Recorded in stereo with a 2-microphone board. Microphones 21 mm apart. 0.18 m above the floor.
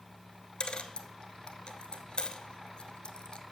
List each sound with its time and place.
0.6 s a dropped coin: 60° left (ahead or behind), 0.6 m